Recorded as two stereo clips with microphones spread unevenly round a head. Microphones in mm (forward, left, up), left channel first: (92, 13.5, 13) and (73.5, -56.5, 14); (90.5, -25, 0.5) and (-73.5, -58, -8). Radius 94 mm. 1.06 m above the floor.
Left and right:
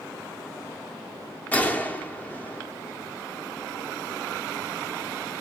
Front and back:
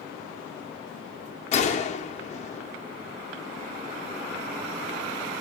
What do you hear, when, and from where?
1.5 s a gunshot: 20° left, 0.7 m